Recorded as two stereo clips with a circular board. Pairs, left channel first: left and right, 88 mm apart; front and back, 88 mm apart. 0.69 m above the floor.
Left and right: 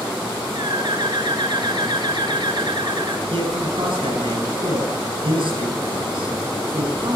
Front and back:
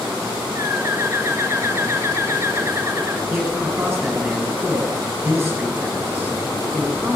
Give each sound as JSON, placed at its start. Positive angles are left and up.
{"t": 0.6, "sound": "a bird", "azimuth_deg": -120, "distance_m": 2.0}
{"t": 3.3, "sound": "a man speaking", "azimuth_deg": -115, "distance_m": 9.0}